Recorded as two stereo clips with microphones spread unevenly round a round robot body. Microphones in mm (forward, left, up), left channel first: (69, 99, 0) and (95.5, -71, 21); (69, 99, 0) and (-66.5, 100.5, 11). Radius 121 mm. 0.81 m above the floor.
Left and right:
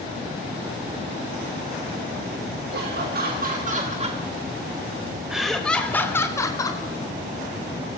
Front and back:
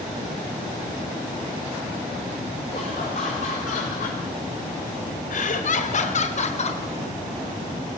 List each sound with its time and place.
2.7 s laughter: 60° right, 3 m; by 6.8 s 35° left, 4 m